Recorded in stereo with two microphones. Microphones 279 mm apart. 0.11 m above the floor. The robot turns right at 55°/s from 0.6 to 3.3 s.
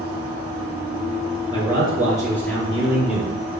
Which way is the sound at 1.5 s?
20° left (ahead or behind).